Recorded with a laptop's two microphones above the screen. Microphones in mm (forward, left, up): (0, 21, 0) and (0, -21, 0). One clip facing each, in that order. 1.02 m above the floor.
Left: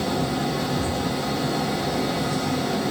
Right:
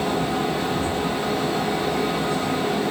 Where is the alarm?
No alarm in this recording.